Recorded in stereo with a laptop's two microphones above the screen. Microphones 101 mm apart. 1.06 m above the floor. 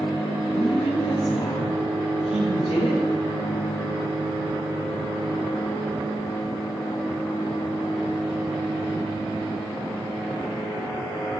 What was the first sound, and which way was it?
A woman speaking, 80° left.